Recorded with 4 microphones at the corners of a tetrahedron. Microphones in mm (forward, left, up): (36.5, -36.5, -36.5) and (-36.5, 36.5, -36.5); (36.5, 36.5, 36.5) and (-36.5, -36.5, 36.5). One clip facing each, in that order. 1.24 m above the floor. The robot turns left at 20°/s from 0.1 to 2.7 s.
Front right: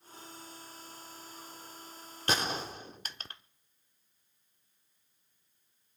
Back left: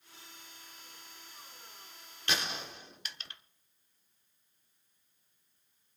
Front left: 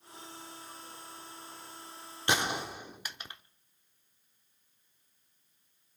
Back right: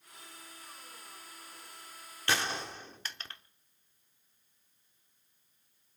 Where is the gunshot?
15° right, 1.0 m; by 3.4 s 25° right, 1.0 m.